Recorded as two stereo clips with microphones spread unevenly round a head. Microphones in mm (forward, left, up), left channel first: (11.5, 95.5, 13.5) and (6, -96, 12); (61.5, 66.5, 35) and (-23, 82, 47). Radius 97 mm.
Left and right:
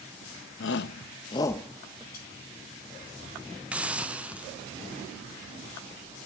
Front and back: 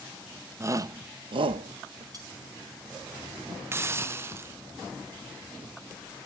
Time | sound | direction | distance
0.6 | a shout | 110° left | 0.8 m
2.1 | cutlery clinking | 130° left | 7 m
3.7 | a hiss | 165° right | 0.8 m